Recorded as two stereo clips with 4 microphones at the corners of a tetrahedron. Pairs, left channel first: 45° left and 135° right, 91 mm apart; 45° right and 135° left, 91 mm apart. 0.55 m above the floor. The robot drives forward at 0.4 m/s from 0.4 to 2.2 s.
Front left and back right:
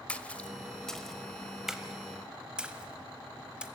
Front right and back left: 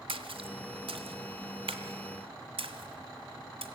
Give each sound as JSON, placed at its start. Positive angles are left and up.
{"t": 0.1, "sound": "a splash", "azimuth_deg": 120, "distance_m": 1.1}